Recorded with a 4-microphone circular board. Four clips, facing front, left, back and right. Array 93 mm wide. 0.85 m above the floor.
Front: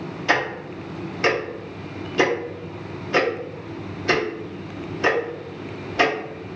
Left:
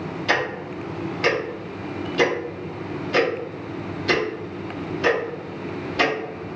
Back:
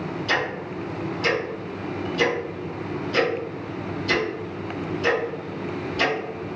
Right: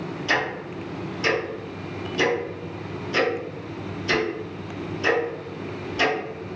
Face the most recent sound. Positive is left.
turn(degrees=20)